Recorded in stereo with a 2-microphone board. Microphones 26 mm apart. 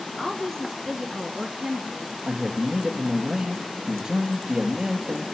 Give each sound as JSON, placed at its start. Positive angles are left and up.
{"t": 0.2, "sound": "a woman speaking", "side_deg": 30, "distance_m": 1.9}
{"t": 2.2, "sound": "a man speaking", "side_deg": -20, "distance_m": 2.5}